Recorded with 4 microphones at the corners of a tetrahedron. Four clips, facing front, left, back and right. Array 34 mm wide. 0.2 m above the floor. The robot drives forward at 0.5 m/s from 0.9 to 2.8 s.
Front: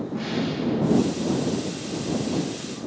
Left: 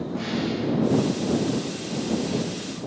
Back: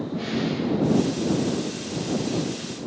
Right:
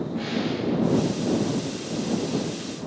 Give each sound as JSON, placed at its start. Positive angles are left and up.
{"t": 0.1, "sound": "a snare drum", "azimuth_deg": 55, "distance_m": 4.5}